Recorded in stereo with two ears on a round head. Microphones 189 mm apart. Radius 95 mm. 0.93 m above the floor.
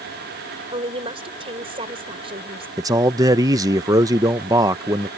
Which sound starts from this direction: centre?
A man speaking, at 2.8 s.